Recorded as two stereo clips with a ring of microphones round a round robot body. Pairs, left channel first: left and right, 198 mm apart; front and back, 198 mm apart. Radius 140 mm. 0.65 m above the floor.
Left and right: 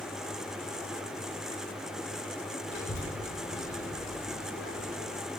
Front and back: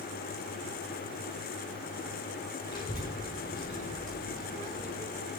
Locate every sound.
2.7 s a child speaking: 65° left, 6.5 m; by 5.2 s 70° left, 9 m